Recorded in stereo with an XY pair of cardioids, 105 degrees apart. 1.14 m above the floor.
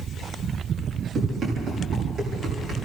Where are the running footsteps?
60° right, 9 m; by 2.7 s 55° right, 10 m.